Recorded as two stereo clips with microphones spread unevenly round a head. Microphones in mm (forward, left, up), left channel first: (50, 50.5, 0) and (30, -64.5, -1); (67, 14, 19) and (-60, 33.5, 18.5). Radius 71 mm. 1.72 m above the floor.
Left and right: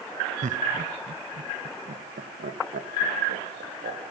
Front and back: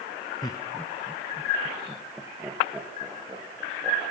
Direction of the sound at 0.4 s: 75° right.